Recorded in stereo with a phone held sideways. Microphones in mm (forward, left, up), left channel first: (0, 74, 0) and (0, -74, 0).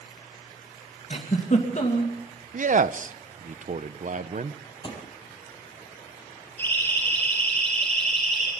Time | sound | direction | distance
1.1 | a giggle | 55° left (ahead or behind) | 2.5 m
2.5 | a man speaking | 60° right (ahead or behind) | 0.7 m
4.8 | a thud | 35° left (ahead or behind) | 3.5 m
6.6 | a siren | 15° left (ahead or behind) | 8.5 m